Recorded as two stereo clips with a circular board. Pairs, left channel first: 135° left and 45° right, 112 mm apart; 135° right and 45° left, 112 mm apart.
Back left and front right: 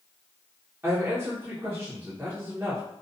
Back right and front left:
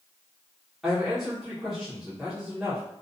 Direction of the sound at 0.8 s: 40° right.